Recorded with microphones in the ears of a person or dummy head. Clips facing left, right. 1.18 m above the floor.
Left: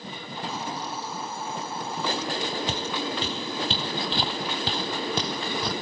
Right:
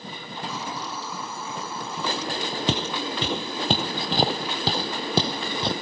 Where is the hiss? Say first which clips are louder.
Left 1 dB; 65° right (ahead or behind).